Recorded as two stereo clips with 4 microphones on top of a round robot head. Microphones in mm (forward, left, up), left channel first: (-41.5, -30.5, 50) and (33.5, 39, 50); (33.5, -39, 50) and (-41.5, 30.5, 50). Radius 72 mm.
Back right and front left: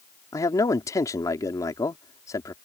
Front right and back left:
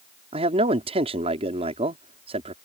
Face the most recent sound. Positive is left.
turn(degrees=165)